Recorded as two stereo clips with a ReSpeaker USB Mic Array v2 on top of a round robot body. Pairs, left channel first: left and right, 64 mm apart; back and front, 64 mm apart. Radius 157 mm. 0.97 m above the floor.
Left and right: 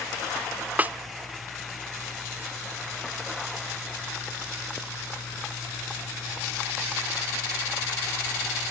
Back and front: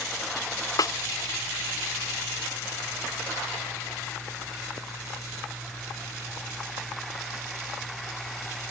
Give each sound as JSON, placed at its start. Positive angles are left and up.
{"t": 0.8, "sound": "a snare drum", "azimuth_deg": -155}